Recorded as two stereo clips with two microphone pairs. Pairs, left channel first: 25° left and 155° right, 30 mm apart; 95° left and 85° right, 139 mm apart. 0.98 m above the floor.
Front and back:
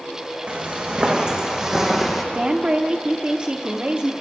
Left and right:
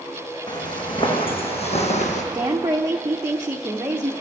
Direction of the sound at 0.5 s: 155° left.